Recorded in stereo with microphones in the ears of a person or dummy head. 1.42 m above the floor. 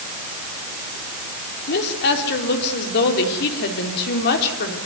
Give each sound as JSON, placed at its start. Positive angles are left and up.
{"t": 1.7, "sound": "a woman speaking", "side_deg": 55, "distance_m": 3.5}